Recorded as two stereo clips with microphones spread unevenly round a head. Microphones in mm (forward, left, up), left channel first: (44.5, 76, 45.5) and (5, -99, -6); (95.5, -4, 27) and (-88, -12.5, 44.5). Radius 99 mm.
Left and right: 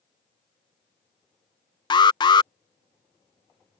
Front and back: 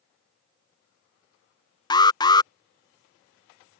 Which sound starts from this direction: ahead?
An alarm, at 1.9 s.